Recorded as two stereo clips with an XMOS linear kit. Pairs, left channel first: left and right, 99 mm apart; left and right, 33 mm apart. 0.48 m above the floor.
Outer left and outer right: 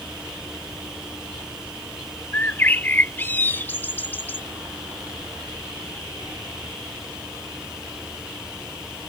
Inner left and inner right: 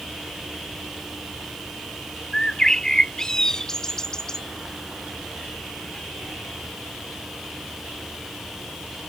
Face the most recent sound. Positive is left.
turn(degrees=20)  # may be behind; listen again after turning